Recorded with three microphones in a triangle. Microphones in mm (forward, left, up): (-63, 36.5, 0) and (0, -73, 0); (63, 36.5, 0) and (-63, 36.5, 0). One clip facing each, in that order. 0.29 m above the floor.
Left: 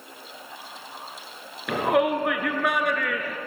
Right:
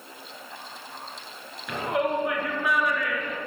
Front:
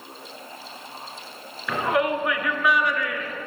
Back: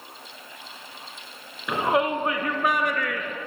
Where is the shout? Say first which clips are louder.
Left 4 dB, even; 110° left, 3.5 m; by 3.4 s 155° left, 3.5 m.